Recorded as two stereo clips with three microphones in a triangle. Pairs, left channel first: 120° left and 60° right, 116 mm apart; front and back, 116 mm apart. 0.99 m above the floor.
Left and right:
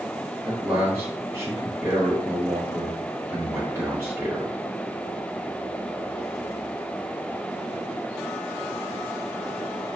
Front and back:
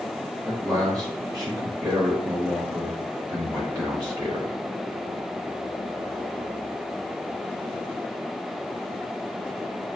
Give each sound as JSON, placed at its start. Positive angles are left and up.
{"t": 0.5, "sound": "a man speaking", "azimuth_deg": -125, "distance_m": 1.2}